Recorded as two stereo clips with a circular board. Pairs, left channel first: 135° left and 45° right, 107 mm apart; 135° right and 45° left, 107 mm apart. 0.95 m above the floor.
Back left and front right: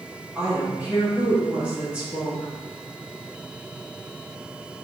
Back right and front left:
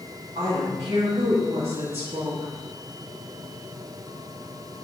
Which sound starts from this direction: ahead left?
A woman speaking, at 0.3 s.